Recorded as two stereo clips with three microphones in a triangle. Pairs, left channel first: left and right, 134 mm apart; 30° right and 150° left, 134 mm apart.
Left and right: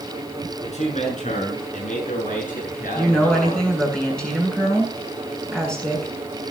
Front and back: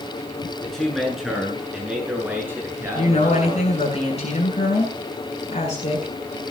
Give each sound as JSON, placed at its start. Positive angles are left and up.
{"t": 0.6, "sound": "a man speaking", "azimuth_deg": 55, "distance_m": 7.5}
{"t": 3.0, "sound": "a woman speaking", "azimuth_deg": 5, "distance_m": 8.0}